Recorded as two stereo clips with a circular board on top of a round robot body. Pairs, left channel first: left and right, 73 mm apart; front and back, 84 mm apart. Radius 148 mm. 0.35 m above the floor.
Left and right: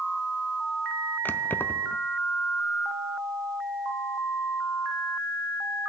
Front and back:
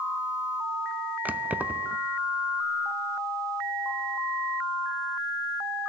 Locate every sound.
1.2 s keys jangling: 125° left, 0.5 m